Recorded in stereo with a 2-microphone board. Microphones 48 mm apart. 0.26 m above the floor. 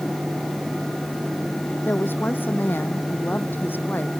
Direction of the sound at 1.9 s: 45° left (ahead or behind).